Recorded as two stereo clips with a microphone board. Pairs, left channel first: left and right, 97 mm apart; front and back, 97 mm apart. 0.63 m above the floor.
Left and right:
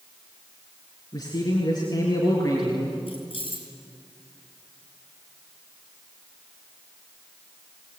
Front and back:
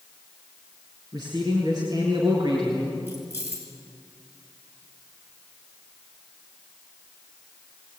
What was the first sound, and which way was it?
A man speaking, 135° left.